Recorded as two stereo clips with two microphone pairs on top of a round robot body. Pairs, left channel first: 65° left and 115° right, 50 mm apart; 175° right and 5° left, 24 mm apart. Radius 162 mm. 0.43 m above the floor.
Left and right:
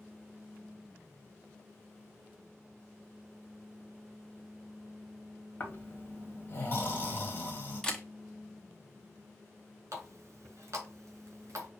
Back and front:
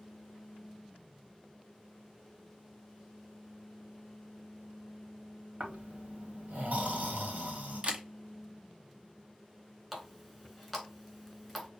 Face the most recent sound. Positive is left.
turn(degrees=-85)